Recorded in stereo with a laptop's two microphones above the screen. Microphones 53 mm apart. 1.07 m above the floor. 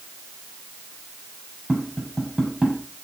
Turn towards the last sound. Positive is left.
turn(degrees=-5)  # may be behind; listen again after turning